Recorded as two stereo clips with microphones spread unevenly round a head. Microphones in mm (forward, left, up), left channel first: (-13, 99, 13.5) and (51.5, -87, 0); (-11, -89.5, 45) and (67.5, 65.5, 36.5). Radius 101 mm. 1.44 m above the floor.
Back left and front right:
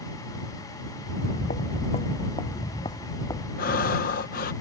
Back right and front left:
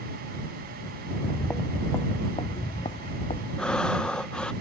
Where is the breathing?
160° left.